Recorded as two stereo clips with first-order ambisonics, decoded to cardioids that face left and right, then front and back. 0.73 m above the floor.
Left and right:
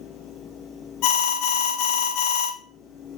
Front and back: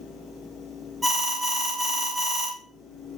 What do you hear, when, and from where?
1.0 s an alarm: 100° left, 0.9 m